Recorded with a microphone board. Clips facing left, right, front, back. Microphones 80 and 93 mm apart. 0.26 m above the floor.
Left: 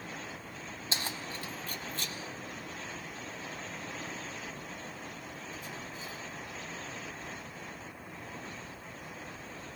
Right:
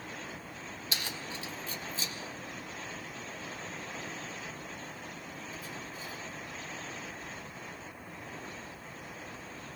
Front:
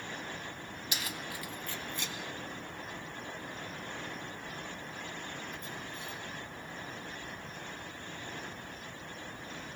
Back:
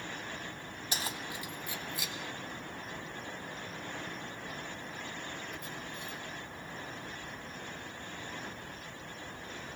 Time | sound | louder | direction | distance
0.9 | keys jangling | left 2 dB, back 2 dB | 140° left | 1.6 m